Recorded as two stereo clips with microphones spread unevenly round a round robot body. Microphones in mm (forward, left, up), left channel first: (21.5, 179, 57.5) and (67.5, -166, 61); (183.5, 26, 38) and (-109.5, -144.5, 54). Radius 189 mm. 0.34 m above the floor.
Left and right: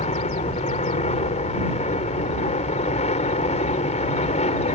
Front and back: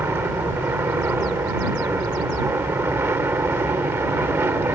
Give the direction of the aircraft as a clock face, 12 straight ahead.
8 o'clock.